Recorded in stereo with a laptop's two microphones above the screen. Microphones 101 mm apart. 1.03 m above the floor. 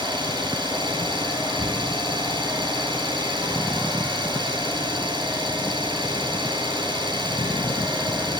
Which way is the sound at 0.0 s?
50° right (ahead or behind).